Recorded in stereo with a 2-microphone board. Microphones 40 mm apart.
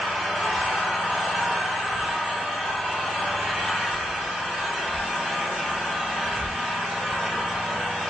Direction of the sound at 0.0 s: Centre (ahead or behind).